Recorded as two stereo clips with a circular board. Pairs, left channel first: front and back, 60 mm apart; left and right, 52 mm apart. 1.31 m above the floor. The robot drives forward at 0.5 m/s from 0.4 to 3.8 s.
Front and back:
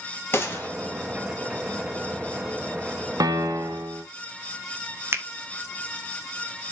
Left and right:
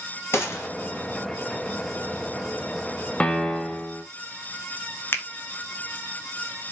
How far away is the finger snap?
About 0.9 m.